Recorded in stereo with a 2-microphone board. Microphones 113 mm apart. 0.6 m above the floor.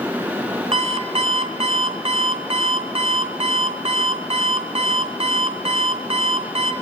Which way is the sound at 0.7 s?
65° right (ahead or behind).